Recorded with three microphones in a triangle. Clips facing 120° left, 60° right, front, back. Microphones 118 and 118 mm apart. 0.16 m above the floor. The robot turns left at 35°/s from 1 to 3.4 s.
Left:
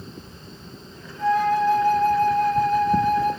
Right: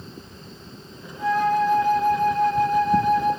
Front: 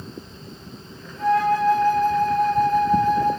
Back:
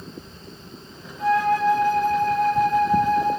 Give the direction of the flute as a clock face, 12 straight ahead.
12 o'clock.